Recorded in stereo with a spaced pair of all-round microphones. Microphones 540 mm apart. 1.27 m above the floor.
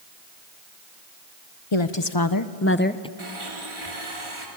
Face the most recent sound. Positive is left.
turn(degrees=-65)  # may be behind; listen again after turning